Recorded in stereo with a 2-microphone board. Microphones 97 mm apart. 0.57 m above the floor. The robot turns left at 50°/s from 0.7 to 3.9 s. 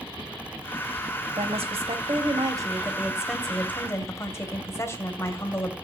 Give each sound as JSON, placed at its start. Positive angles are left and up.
{"t": 1.4, "sound": "a woman speaking", "azimuth_deg": -80, "distance_m": 2.5}